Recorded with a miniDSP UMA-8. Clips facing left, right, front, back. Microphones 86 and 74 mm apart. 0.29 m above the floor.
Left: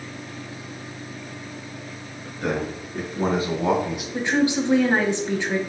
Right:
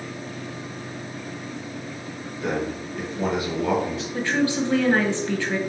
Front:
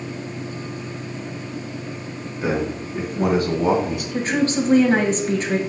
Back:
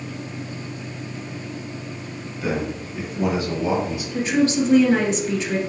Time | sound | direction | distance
2.4 | a man speaking | 55° left | 3 m
4.1 | a woman speaking | 25° left | 1.4 m